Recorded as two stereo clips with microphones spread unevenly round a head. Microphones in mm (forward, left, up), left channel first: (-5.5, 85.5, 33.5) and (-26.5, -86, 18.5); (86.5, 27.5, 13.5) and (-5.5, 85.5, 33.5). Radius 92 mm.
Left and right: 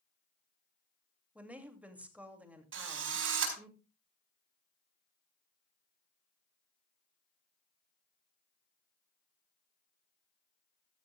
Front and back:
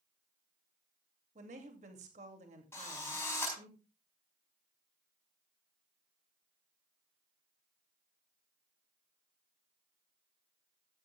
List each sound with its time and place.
1.4 s a woman speaking: straight behind, 2.5 m
2.7 s a drill: 110° right, 4.5 m